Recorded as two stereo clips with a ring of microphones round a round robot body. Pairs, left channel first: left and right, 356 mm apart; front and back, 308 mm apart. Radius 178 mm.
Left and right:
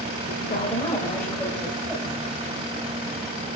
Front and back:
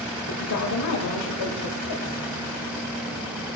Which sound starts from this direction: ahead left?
A woman speaking, at 0.3 s.